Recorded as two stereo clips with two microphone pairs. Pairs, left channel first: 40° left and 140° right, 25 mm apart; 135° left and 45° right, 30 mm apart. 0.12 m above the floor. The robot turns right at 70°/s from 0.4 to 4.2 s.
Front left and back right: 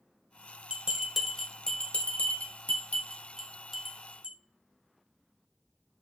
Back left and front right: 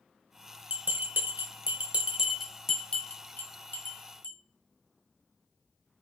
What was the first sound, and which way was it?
A bell, 80° right.